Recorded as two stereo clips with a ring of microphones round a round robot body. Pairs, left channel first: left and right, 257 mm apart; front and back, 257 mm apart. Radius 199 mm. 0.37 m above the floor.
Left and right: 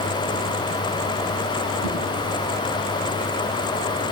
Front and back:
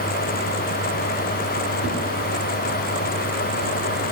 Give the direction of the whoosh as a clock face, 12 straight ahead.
9 o'clock.